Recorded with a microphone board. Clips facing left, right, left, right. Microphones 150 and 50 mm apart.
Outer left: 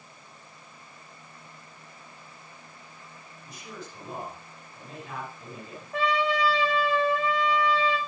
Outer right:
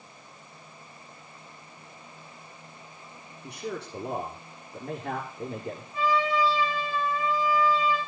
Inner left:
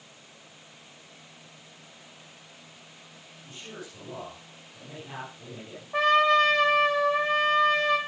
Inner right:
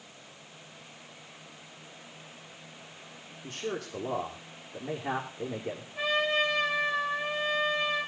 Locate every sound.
3.4 s a man speaking: 70° right (ahead or behind), 6.5 m
5.9 s a trumpet: 75° left (ahead or behind), 7 m